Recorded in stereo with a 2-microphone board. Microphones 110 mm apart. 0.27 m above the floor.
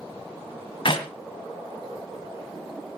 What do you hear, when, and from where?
0.8 s a clap: 50° left (ahead or behind), 1.5 m